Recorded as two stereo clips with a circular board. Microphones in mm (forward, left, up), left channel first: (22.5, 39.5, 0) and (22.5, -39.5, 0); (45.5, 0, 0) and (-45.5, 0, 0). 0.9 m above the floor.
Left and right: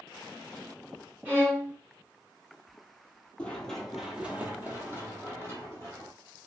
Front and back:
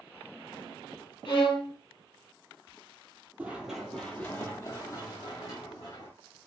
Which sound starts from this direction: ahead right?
A violin, at 1.2 s.